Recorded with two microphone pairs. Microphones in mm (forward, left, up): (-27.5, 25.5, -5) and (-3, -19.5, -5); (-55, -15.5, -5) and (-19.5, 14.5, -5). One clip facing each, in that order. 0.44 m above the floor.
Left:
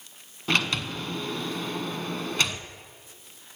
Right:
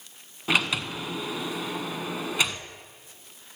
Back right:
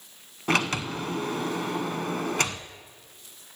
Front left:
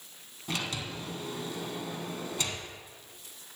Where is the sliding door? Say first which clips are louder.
Right 1 dB, back right 10 dB; 145° right, 0.8 m.